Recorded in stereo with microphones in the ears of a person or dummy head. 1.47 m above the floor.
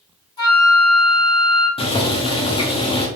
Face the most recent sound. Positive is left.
turn(degrees=30)  # may be behind; listen again after turning